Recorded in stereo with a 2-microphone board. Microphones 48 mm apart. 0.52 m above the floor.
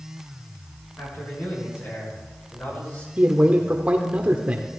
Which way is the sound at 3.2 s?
30° right (ahead or behind).